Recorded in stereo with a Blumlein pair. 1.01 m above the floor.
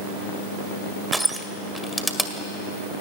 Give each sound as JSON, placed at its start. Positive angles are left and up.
{"t": 1.1, "sound": "crushing", "azimuth_deg": -5, "distance_m": 1.9}